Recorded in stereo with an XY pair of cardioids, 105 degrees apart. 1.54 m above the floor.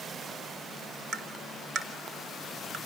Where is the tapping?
65° right, 2.5 m.